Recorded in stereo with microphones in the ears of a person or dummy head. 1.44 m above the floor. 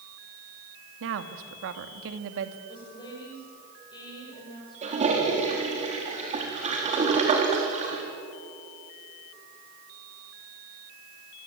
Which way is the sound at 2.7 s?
25° left (ahead or behind).